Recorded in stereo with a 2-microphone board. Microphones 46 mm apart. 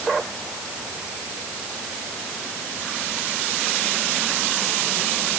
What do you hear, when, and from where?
Only background noise.